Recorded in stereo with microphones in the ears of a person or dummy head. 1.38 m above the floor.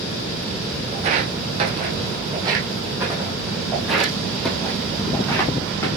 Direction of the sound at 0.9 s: 45° right (ahead or behind).